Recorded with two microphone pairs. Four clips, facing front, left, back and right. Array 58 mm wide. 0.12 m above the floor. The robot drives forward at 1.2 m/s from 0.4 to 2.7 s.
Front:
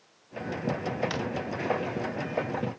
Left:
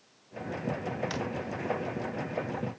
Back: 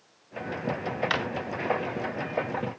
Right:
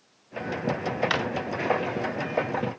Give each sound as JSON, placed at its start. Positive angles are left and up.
{"t": 1.1, "sound": "a drawer", "azimuth_deg": -130}